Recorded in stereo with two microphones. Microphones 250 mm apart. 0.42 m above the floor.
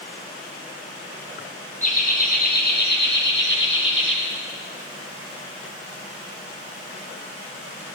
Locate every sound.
1.8 s laughter: 30° left (ahead or behind), 5 m; by 4.2 s 50° left (ahead or behind), 7 m